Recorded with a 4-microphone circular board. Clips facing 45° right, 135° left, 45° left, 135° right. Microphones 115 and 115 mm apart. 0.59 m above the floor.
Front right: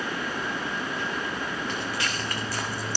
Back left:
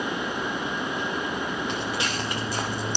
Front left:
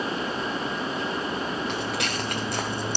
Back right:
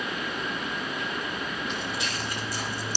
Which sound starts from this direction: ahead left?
Footsteps, at 1.7 s.